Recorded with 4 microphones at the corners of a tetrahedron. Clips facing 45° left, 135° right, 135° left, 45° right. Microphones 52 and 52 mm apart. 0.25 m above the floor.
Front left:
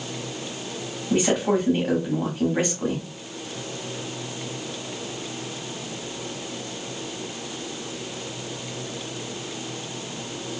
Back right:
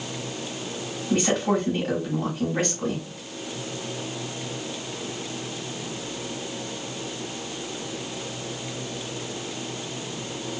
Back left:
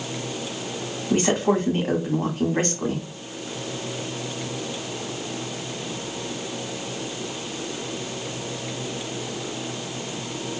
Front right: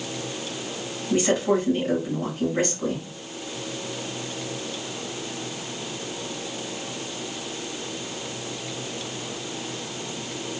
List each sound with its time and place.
1.1 s a woman speaking: 120° left, 1.3 m